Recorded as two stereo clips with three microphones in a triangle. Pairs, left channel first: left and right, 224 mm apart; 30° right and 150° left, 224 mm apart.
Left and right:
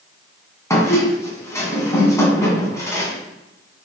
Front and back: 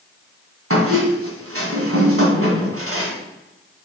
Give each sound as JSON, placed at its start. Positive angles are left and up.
{"t": 0.7, "sound": "a squeak", "azimuth_deg": 165, "distance_m": 1.9}